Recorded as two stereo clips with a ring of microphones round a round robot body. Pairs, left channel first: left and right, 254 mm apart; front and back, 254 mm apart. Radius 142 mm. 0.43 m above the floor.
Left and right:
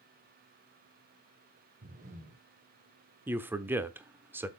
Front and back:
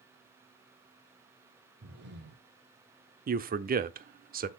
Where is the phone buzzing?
No phone buzzing in this recording.